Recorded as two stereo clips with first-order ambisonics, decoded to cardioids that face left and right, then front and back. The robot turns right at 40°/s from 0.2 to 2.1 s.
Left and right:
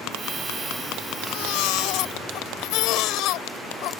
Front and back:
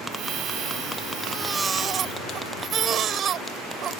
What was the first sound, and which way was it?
A baby crying, 90° left.